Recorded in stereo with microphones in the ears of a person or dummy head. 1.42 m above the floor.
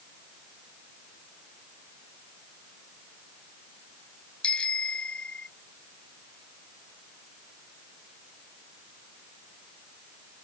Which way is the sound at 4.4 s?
10° left (ahead or behind).